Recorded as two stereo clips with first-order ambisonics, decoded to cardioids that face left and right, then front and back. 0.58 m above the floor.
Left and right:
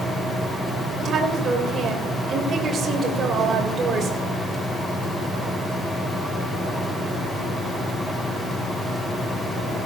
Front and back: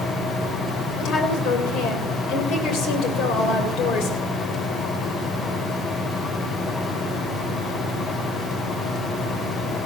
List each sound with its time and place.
1.0 s a woman speaking: 30° right, 3 m